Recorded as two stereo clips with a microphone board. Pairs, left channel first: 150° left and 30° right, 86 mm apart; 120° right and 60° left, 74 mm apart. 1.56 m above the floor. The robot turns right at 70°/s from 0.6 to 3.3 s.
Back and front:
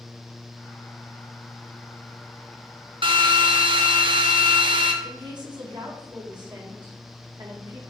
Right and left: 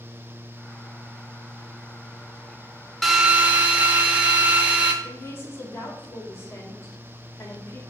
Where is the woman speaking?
65° right, 1.7 m.